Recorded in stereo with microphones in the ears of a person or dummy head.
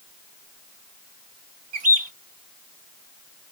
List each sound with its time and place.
1.7 s a bird: 45° right (ahead or behind), 0.5 m